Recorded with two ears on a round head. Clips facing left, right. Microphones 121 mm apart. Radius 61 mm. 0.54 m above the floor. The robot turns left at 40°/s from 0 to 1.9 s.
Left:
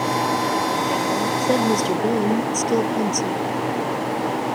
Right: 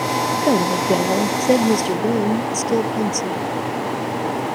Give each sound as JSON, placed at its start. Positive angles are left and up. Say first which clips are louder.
{"t": 0.4, "sound": "a woman speaking", "louder": "right 4 dB", "azimuth_deg": -115}